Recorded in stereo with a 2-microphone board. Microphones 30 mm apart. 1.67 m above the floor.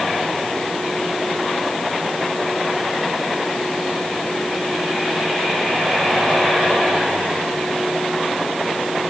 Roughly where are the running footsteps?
I don't hear running footsteps.